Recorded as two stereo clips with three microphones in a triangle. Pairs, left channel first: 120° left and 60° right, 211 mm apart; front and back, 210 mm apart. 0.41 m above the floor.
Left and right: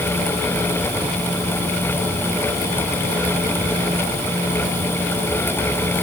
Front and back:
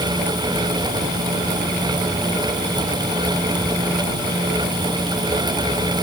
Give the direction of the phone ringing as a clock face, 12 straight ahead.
No phone ringing in this recording.